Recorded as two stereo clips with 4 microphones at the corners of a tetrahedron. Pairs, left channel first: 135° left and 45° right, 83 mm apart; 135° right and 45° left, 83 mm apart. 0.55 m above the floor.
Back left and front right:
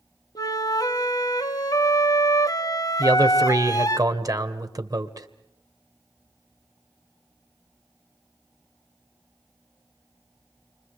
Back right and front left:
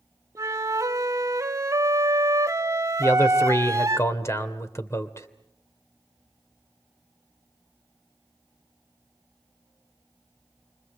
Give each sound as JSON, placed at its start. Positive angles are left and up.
{"t": 0.3, "sound": "a flute", "azimuth_deg": 95, "distance_m": 0.9}
{"t": 3.0, "sound": "a man speaking", "azimuth_deg": -85, "distance_m": 2.5}